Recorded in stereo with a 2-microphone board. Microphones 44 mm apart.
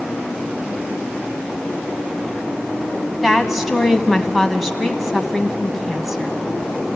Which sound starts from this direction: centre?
A woman speaking, at 3.2 s.